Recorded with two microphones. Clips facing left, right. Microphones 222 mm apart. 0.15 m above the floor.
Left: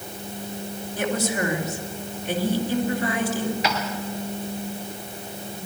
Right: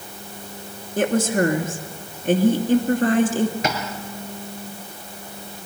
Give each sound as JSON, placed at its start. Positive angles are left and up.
{"t": 1.0, "sound": "a woman speaking", "side_deg": -50, "distance_m": 2.5}
{"t": 3.6, "sound": "tapping", "side_deg": -50, "distance_m": 3.0}